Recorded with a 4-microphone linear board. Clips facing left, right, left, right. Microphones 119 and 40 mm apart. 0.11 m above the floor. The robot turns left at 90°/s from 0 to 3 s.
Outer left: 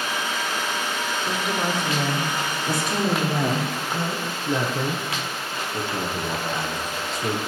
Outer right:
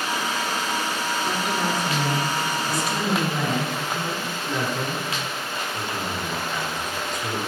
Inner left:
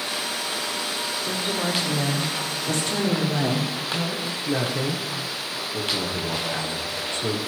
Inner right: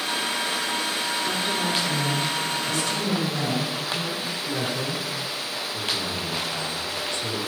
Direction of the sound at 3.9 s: 30° left (ahead or behind).